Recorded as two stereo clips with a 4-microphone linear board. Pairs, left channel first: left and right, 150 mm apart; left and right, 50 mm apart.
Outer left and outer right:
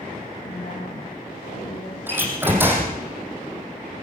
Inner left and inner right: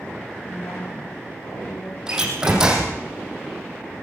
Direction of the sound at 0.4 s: 70° left (ahead or behind).